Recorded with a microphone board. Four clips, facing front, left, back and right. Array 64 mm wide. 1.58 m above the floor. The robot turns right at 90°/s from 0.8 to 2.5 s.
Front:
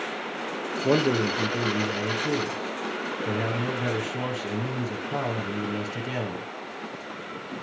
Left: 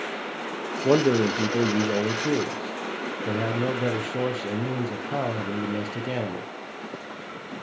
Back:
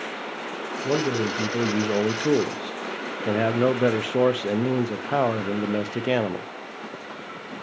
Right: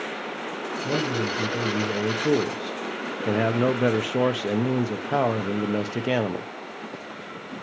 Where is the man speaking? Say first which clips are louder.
Left 7 dB, front 1 dB; 60° left, 0.9 m; by 6.5 s 150° right, 0.9 m.